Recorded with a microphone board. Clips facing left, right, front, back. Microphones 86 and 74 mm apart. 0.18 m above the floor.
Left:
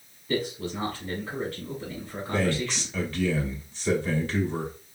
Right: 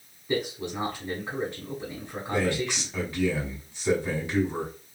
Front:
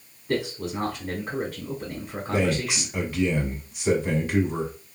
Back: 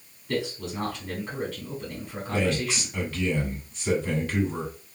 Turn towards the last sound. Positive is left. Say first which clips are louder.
# even, front 2 dB
turn(degrees=-40)